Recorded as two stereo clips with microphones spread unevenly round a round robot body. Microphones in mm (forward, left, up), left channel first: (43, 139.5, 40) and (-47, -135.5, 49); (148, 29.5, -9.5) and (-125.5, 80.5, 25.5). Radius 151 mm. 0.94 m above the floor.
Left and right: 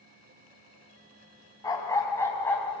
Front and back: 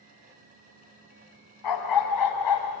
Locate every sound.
1.6 s a dog barking: 5° right, 3.5 m; by 2.8 s 15° right, 3 m